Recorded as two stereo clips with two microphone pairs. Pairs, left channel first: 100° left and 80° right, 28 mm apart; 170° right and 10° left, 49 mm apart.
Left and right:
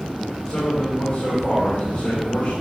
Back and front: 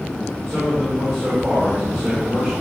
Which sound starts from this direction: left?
A man speaking, at 0.5 s.